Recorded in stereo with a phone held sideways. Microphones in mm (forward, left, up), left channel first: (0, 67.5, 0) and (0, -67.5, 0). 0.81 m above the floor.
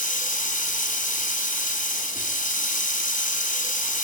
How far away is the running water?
About 4 m.